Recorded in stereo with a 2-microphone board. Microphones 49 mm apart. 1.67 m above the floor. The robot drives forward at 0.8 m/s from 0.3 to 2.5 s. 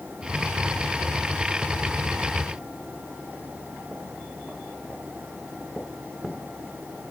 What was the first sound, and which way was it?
Only background noise.